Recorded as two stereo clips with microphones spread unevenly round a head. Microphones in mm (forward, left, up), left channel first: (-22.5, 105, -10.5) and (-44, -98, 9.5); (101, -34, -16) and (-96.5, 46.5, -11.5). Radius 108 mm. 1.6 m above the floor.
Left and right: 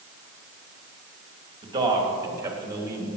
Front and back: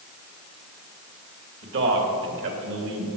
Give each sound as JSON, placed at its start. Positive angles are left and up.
{"t": 1.6, "sound": "a man speaking", "azimuth_deg": -165, "distance_m": 2.5}